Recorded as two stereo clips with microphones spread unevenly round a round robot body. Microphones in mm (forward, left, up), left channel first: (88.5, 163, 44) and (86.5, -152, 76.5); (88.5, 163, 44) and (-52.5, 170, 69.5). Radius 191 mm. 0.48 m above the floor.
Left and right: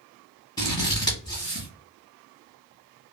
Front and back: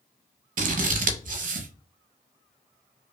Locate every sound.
0.6 s scissors: 170° left, 0.6 m